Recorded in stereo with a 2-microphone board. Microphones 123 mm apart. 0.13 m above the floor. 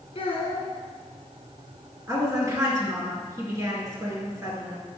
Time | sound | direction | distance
0.1 | a child speaking | 40° left (ahead or behind) | 1.3 m
2.1 | a woman speaking | 25° right (ahead or behind) | 2 m